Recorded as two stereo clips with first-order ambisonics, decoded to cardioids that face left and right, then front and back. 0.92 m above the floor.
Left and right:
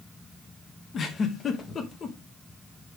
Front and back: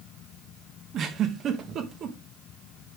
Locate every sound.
0.9 s a giggle: 140° left, 1.1 m